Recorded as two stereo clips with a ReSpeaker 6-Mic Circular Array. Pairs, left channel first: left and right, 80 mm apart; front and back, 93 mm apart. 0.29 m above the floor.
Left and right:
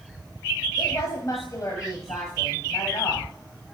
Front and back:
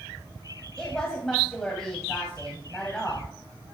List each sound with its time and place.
0.8 s a woman speaking: 80° left, 1.3 m